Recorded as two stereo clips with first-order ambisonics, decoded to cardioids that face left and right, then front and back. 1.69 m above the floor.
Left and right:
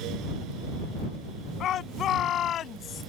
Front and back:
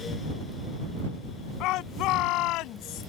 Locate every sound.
1.6 s a shout: 35° left